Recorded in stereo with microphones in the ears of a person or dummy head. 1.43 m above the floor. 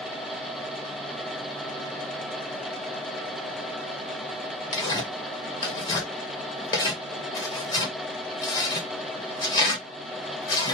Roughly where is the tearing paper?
Left.